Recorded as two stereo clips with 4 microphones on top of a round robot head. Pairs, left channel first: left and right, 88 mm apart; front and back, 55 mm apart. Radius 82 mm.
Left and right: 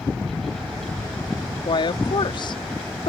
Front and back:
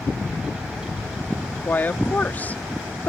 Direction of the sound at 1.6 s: 60° left.